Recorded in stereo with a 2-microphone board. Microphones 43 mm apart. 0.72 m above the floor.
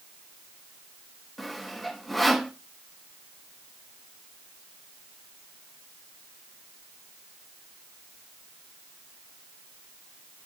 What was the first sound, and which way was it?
Sawing, 5° left (ahead or behind).